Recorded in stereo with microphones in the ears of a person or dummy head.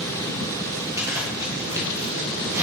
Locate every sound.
1.0 s a zipper: 15° right (ahead or behind), 2 m